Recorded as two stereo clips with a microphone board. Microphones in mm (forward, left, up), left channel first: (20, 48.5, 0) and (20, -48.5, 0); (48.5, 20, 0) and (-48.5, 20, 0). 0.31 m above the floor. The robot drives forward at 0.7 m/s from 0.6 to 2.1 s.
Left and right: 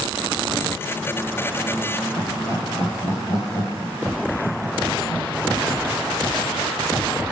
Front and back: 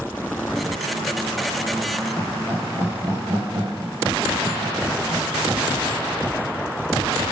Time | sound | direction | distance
2.2 | laughter | 145° left | 6.5 m